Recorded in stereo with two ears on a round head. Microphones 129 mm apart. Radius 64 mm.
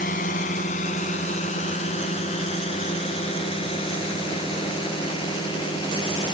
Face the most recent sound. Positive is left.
turn(degrees=35)  # may be behind; listen again after turning